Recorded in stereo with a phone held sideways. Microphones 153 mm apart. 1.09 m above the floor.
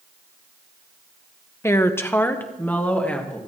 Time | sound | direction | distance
1.6 | a woman speaking | 15° left (ahead or behind) | 0.6 m